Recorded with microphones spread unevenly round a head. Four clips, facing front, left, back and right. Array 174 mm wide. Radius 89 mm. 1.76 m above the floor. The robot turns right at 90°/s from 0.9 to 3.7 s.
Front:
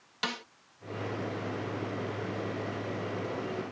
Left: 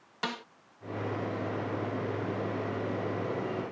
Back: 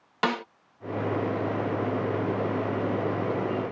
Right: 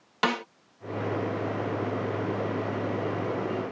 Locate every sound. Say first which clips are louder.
0.2 s a snare drum: right 9 dB, back 10 dB; 135° right